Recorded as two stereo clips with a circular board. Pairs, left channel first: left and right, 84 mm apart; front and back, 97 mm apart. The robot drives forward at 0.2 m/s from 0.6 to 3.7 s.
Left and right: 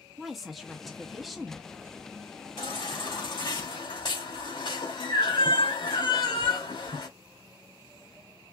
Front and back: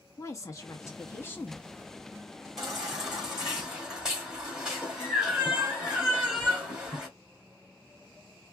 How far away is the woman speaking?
About 0.8 m.